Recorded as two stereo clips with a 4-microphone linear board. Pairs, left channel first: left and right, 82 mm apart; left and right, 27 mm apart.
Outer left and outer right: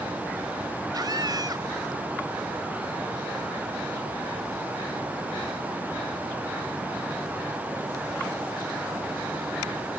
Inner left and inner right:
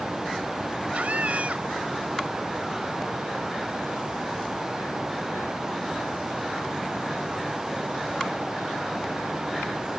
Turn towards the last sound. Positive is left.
turn(degrees=-55)  # may be behind; listen again after turning